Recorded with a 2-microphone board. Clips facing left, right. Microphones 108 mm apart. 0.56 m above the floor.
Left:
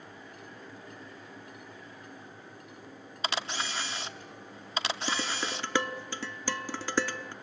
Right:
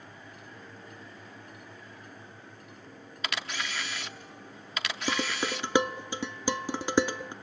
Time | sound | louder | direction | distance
3.2 | a camera shutter | left 2 dB | 30° left (ahead or behind) | 1.1 m
5.1 | dishes clattering | right 7 dB | 20° right (ahead or behind) | 0.6 m